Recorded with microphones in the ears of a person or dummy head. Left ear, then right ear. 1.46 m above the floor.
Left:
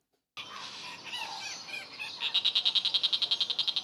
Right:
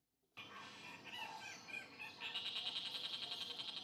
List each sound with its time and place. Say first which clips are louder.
0.4 s a bird: left 12 dB; 55° left (ahead or behind), 0.6 m